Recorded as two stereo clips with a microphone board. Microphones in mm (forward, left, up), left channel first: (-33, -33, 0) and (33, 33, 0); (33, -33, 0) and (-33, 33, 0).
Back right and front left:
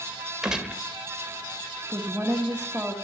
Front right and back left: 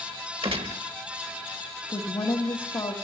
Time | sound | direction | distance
0.4 | a gunshot | 130° left | 1.1 m
1.9 | a woman speaking | 30° right | 1.5 m